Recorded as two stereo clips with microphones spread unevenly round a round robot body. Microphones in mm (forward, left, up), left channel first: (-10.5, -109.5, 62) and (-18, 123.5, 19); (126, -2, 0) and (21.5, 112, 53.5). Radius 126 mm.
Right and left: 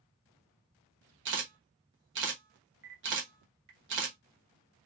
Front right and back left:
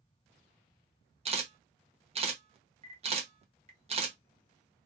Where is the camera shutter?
75° left, 1.0 m.